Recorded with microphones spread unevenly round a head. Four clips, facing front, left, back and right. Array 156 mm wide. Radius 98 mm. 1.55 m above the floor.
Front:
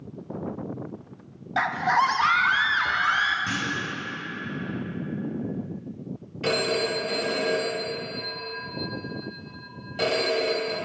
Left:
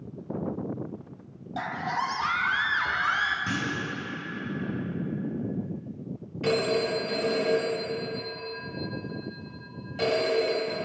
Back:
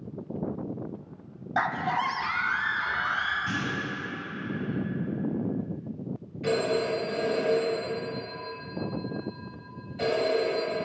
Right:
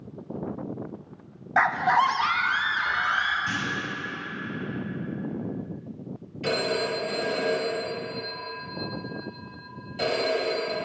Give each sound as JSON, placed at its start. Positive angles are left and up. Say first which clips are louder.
{"t": 1.6, "sound": "a scream", "louder": "right 9 dB, front 5 dB", "azimuth_deg": -75, "distance_m": 0.6}
{"t": 3.5, "sound": "a clunk", "louder": "even, front 2 dB", "azimuth_deg": 60, "distance_m": 1.4}
{"t": 6.4, "sound": "a phone ringing", "louder": "left 1 dB, front 1 dB", "azimuth_deg": 0, "distance_m": 2.0}